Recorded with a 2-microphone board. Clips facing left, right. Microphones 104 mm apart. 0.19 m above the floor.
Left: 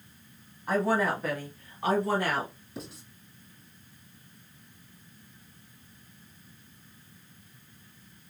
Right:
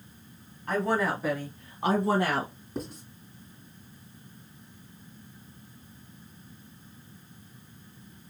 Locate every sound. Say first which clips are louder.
0.7 s a woman speaking: left 1 dB; 10° left (ahead or behind), 1.0 m; by 2.5 s 30° right (ahead or behind), 1.4 m
2.8 s writing: right 6 dB; 45° right (ahead or behind), 2 m